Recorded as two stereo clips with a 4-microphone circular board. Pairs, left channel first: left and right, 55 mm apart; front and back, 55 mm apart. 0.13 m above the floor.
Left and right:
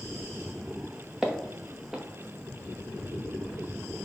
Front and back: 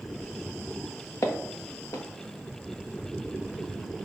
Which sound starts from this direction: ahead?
Footsteps, at 1.2 s.